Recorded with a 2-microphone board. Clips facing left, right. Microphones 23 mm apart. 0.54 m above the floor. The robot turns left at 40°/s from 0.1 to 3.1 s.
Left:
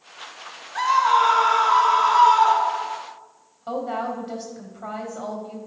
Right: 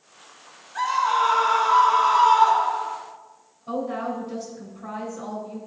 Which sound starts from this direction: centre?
A scream, at 0.8 s.